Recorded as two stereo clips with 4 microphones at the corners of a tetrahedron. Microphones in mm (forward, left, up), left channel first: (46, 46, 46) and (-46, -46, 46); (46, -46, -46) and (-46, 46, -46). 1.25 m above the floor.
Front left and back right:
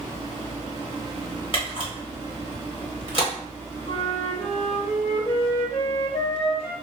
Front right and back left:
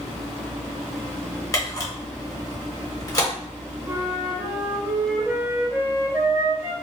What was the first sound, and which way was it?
A camera shutter, 15° left.